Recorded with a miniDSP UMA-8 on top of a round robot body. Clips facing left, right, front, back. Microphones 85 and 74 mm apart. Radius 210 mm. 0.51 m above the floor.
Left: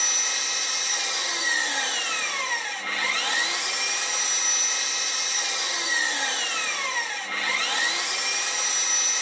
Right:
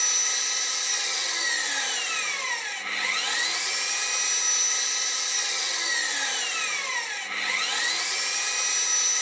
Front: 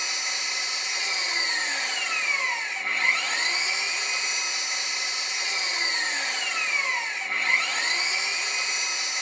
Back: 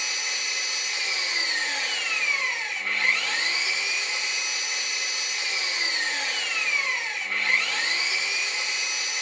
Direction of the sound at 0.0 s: 65° left.